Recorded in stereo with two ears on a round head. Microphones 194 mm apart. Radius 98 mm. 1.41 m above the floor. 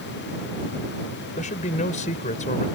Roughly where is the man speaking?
Left.